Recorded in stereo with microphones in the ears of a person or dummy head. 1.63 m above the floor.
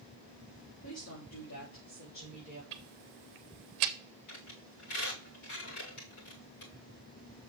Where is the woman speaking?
85° left, 3.5 m.